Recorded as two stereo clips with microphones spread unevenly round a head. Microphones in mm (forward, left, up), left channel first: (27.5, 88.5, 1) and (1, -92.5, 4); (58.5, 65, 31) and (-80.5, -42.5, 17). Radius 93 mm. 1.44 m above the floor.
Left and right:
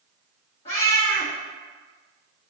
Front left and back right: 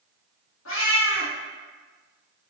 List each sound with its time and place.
0.7 s a cat meowing: 25° left, 1.7 m